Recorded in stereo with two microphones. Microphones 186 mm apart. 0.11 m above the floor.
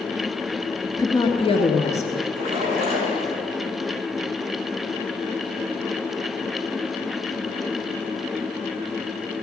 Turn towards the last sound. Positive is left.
turn(degrees=-30)  # may be behind; listen again after turning